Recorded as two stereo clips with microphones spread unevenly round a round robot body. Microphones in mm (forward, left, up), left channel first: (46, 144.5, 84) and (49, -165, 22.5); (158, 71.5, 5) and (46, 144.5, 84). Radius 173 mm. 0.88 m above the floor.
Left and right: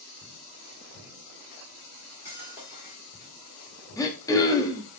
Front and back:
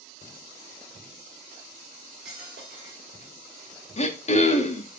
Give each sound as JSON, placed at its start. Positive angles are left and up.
{"t": 1.9, "sound": "cutlery clinking", "azimuth_deg": -175, "distance_m": 1.5}
{"t": 4.0, "sound": "throat clearing", "azimuth_deg": 10, "distance_m": 1.0}